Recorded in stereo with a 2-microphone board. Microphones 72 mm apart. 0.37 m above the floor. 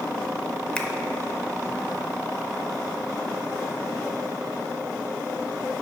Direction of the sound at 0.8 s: 15° left (ahead or behind).